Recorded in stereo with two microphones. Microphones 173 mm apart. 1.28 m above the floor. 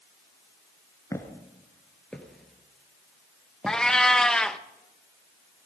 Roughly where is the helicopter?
No helicopter in this recording.